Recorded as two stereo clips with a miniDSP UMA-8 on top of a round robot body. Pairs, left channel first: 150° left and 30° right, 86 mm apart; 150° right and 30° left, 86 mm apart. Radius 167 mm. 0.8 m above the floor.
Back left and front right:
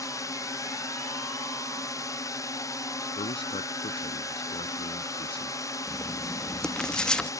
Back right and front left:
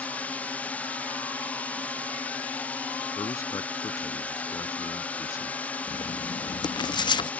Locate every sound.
0.0 s a drone: 145° left
3.2 s a man speaking: 155° left
5.9 s writing: 130° right